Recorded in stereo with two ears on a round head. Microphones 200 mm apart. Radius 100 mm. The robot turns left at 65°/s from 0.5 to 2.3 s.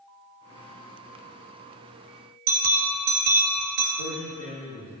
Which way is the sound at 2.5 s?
50° right (ahead or behind).